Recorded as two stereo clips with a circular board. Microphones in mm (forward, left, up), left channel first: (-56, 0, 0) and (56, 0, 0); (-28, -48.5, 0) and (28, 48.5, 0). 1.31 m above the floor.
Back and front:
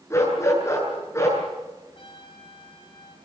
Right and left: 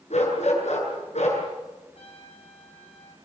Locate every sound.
0.1 s a dog barking: 115° right, 8.5 m
1.9 s a trumpet: 140° right, 6.5 m